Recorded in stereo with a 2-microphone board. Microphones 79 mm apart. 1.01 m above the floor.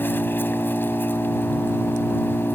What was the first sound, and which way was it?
An engine running, 25° left (ahead or behind).